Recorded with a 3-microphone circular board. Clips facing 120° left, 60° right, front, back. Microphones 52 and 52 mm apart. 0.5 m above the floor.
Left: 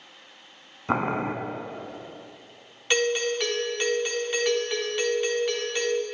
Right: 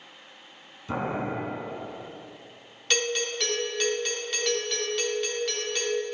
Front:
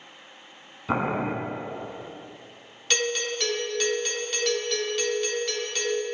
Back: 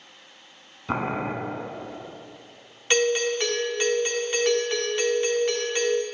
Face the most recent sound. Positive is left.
turn(degrees=170)